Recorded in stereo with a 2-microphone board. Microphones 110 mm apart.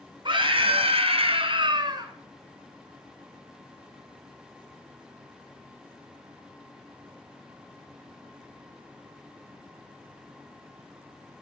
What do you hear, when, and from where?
0.2 s a scream: 50° right (ahead or behind), 2 m; by 2.1 s 40° right (ahead or behind), 2.5 m